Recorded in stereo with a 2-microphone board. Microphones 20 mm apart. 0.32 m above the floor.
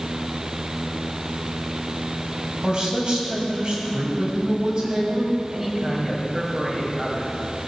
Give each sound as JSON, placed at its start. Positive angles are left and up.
{"t": 2.6, "sound": "a man speaking", "side_deg": -50, "distance_m": 2.5}
{"t": 5.5, "sound": "a man speaking", "side_deg": -10, "distance_m": 2.0}